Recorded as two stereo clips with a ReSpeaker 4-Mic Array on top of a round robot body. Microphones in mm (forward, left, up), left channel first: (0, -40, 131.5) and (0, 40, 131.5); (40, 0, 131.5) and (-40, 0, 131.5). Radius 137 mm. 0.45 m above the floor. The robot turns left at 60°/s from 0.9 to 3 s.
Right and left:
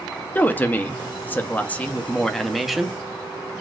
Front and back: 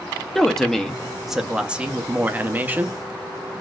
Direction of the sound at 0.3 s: 75° right.